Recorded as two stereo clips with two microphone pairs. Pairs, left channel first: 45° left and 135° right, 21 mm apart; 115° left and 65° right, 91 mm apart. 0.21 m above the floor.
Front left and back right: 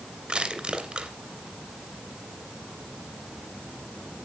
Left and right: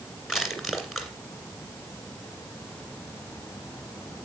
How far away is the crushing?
About 2 m.